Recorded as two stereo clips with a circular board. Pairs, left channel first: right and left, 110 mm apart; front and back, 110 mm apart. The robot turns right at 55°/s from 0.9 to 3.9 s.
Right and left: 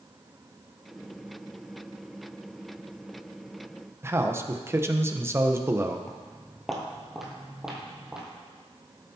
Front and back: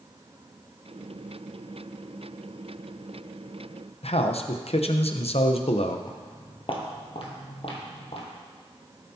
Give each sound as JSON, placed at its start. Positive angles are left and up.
{"t": 4.0, "sound": "a man speaking", "azimuth_deg": 25, "distance_m": 0.9}
{"t": 6.1, "sound": "footsteps", "azimuth_deg": -15, "distance_m": 1.8}